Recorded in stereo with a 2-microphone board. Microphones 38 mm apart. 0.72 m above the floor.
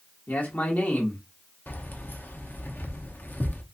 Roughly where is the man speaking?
Left.